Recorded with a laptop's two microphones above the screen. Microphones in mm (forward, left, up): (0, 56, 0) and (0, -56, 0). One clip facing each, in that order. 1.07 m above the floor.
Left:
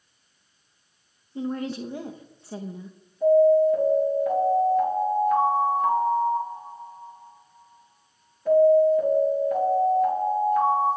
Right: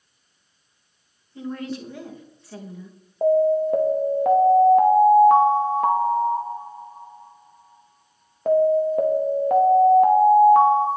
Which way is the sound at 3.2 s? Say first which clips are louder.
Left 1 dB; 70° right (ahead or behind).